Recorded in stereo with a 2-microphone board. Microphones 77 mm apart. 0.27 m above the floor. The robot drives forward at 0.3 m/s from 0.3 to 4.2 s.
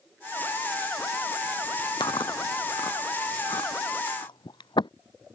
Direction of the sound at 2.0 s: 85° left.